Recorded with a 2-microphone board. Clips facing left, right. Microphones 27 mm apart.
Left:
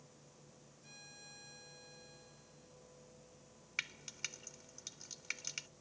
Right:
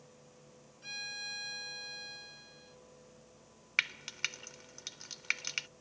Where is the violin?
80° right.